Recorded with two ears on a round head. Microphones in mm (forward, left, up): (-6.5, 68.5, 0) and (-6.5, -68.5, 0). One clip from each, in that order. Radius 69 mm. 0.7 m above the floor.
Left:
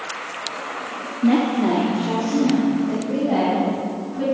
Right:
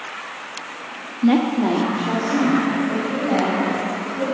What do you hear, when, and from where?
1.2 s a woman speaking: 35° right (ahead or behind), 0.8 m; by 4.2 s 20° right (ahead or behind), 4.5 m